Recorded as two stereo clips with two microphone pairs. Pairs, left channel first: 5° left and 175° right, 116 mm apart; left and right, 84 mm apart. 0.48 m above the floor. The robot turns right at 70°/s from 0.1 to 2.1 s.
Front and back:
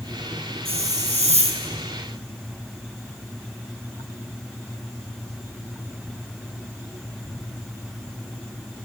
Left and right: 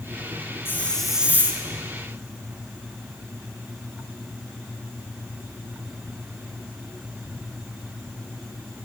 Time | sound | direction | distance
0.7 | a hiss | 150° left | 3 m